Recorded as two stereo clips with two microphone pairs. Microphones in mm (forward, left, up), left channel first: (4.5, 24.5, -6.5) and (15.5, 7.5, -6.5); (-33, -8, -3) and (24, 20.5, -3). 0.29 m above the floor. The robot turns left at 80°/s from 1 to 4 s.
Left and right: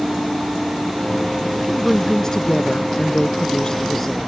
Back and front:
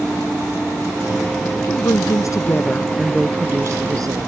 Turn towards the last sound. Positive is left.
turn(degrees=40)